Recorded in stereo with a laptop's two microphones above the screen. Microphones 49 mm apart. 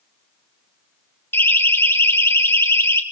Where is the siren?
55° left (ahead or behind), 3.5 m; by 3.0 s 65° left (ahead or behind), 4 m.